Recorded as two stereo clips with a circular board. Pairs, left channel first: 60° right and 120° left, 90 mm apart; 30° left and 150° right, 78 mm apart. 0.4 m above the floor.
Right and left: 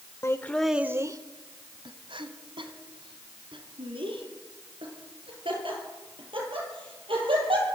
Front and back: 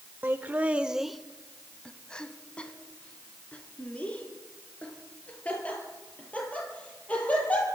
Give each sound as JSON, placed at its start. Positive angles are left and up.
{"t": 0.2, "sound": "laughter", "azimuth_deg": -100, "distance_m": 1.1}